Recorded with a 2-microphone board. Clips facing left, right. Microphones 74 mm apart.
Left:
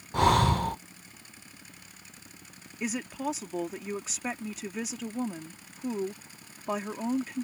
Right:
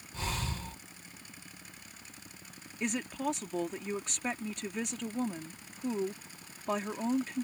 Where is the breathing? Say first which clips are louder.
Left 16 dB; 65° left (ahead or behind).